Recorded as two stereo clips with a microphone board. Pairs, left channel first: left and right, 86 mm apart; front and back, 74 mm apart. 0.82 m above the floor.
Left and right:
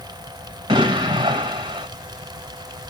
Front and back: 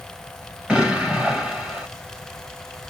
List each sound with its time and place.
0.7 s an explosion: 105° right, 2 m